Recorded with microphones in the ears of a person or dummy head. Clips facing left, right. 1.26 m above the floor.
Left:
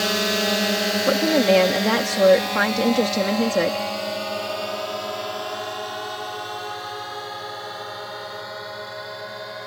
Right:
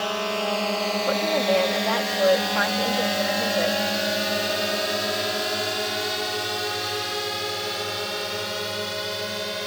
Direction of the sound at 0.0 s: 30° left (ahead or behind).